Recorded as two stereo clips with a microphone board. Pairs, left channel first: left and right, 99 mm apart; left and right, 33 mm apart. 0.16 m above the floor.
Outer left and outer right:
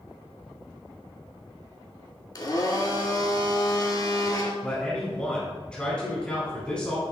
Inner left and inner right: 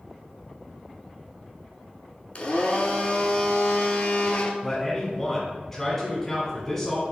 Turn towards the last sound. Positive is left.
turn(degrees=10)  # may be behind; listen again after turning